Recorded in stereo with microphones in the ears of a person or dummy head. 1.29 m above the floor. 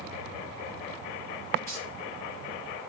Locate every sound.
1.7 s keys jangling: 10° left (ahead or behind), 3.5 m